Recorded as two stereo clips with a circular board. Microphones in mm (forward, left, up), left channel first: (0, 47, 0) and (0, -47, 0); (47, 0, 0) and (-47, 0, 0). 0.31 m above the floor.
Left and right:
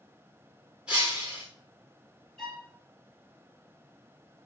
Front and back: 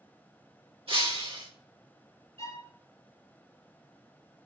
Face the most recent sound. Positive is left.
turn(degrees=175)